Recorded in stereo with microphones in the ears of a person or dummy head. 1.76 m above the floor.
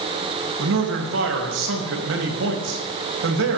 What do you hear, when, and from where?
0.6 s a man speaking: 85° right, 3 m